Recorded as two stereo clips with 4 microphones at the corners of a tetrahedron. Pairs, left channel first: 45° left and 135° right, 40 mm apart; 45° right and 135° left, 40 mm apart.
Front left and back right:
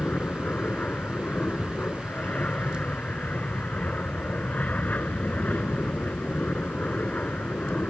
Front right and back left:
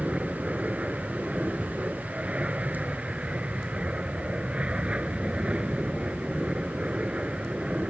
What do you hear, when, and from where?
0.0 s an aircraft: 80° left